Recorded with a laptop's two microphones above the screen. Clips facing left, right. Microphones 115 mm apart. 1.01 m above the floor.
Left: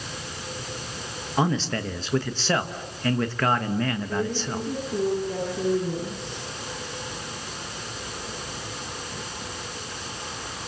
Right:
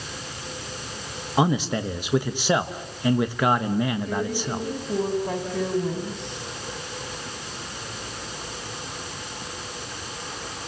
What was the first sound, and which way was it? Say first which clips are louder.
A man speaking: right 2 dB; 15° right (ahead or behind).